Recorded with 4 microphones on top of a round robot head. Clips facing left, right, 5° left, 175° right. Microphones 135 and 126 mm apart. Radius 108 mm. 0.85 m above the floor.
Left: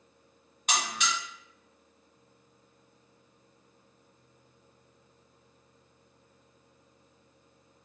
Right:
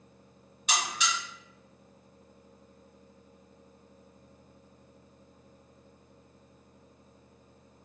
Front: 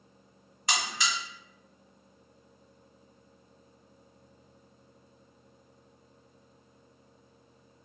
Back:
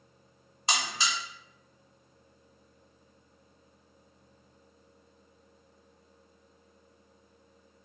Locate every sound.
0.7 s a buzzer: 130° left, 1.6 m